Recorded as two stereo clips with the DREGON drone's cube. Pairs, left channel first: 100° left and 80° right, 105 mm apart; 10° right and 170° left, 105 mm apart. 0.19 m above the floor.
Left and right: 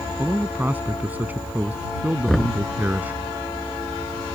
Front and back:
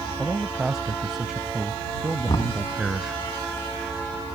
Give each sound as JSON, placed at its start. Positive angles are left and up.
{"t": 0.2, "sound": "a man speaking", "azimuth_deg": -110}
{"t": 2.3, "sound": "knocking", "azimuth_deg": 15}